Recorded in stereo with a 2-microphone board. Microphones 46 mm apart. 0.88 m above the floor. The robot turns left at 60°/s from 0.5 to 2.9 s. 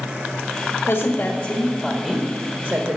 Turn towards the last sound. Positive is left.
turn(degrees=-35)